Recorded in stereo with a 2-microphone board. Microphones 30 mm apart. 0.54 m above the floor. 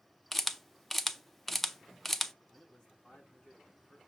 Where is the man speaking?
15° left (ahead or behind), 6 m.